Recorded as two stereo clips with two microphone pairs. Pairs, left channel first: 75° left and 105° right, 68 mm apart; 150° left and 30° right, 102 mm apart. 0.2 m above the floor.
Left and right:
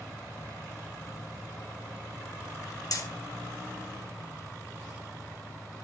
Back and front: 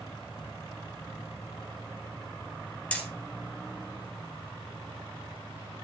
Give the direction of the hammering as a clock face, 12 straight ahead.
10 o'clock.